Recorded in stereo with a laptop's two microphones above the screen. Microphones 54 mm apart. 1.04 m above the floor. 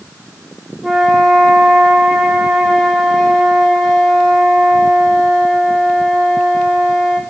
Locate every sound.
0.8 s a flute: 5° right (ahead or behind), 0.6 m